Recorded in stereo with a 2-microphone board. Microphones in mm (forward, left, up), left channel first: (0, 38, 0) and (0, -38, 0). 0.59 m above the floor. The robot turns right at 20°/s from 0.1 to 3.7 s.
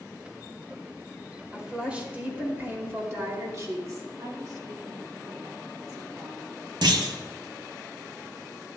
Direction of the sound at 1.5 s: 170° right.